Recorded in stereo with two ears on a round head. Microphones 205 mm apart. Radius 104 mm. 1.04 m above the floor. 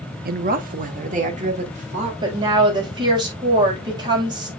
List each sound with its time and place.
0.2 s a woman speaking: 45° right (ahead or behind), 1.1 m; by 2.1 s 35° right (ahead or behind), 3 m
2.2 s a woman speaking: 20° right (ahead or behind), 5.5 m